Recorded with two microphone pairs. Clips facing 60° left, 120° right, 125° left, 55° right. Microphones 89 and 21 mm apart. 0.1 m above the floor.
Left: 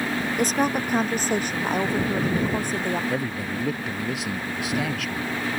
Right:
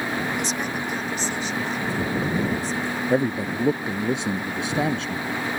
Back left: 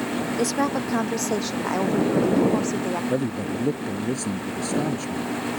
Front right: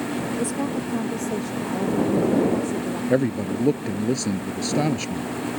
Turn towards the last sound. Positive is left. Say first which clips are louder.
# right 5 dB, front right 3 dB
turn(degrees=-80)